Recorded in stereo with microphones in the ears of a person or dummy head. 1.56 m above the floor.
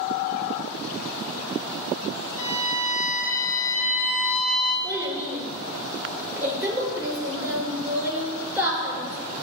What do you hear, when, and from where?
2.4 s a violin: 20° left (ahead or behind), 2.5 m
4.8 s a child speaking: 5° right (ahead or behind), 4 m